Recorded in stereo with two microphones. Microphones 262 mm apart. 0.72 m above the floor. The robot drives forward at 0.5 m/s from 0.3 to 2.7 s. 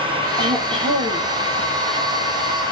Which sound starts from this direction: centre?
Throat clearing, at 0.4 s.